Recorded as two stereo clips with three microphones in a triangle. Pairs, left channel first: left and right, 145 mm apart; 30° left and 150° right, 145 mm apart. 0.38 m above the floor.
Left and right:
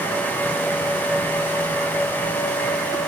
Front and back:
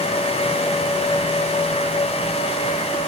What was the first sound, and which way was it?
Only background noise.